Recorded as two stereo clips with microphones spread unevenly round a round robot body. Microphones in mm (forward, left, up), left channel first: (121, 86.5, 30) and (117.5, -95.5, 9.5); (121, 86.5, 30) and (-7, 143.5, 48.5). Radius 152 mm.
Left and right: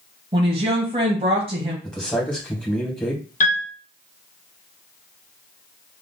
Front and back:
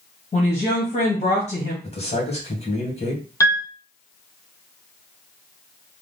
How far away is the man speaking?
About 2.5 m.